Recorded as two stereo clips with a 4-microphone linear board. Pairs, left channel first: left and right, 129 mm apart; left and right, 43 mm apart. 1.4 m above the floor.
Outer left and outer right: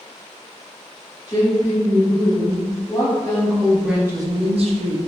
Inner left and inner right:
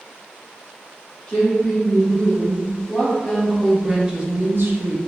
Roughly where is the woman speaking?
Left.